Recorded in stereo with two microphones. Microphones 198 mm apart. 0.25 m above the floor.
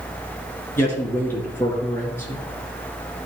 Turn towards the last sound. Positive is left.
turn(degrees=10)  # may be behind; listen again after turning